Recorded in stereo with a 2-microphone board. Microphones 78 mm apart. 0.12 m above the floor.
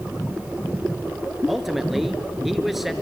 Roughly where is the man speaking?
Centre.